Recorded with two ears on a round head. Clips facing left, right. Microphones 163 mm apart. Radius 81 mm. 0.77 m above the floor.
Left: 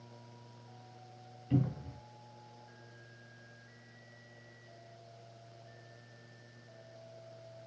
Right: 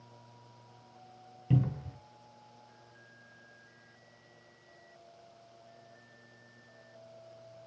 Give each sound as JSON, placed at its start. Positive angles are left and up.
{"t": 1.5, "sound": "a cupboard door", "side_deg": -65, "distance_m": 0.8}